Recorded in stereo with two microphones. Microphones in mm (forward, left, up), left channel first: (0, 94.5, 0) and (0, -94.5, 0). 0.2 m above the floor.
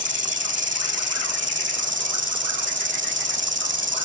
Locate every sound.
0.0 s an insect: 75° right (ahead or behind)